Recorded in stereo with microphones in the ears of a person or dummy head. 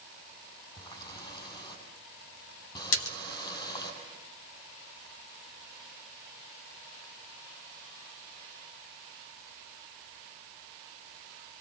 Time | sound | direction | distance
0.8 | a running tap | 25° left (ahead or behind) | 7 m
2.9 | a splash | 70° left (ahead or behind) | 1.6 m